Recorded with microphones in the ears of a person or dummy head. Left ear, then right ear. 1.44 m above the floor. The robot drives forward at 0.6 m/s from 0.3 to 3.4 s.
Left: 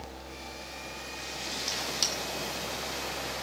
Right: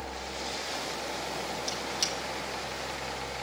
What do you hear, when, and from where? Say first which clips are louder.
1.7 s a squeak: left 3 dB; 5° left (ahead or behind), 1.7 m